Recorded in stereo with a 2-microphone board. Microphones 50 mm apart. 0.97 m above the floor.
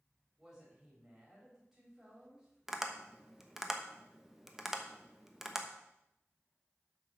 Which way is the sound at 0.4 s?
10° right (ahead or behind).